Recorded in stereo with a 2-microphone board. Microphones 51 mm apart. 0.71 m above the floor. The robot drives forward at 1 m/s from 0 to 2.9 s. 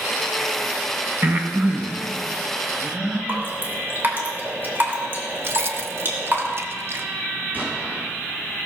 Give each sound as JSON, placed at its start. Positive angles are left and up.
{"t": 1.2, "sound": "breathing", "side_deg": -40, "distance_m": 1.4}
{"t": 3.3, "sound": "dripping", "side_deg": -40, "distance_m": 3.0}
{"t": 5.4, "sound": "keys jangling", "side_deg": -50, "distance_m": 0.8}
{"t": 7.5, "sound": "an explosion", "side_deg": -30, "distance_m": 6.0}